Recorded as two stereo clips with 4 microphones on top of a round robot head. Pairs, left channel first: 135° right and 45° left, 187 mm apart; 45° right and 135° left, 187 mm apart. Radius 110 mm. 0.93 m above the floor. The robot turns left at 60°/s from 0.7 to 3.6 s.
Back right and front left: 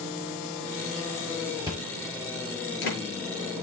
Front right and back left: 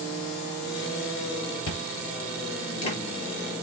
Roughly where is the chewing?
Ahead right.